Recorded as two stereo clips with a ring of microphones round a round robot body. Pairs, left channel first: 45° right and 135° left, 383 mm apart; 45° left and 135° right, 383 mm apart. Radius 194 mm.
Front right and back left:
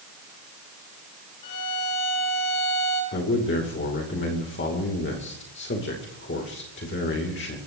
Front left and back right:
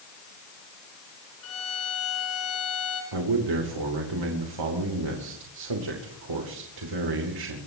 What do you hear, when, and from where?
1.4 s a violin: 10° right, 8.5 m
3.1 s a man speaking: 105° right, 2.5 m